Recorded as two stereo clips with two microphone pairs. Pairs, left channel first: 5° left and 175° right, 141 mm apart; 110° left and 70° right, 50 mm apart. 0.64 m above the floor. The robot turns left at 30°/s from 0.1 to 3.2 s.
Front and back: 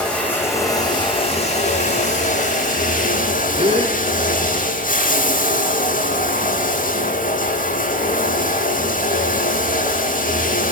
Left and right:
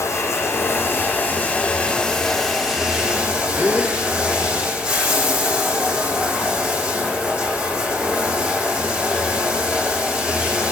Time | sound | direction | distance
0.0 | running water | 90° left | 9 m
3.6 | a gasp | 125° right | 7 m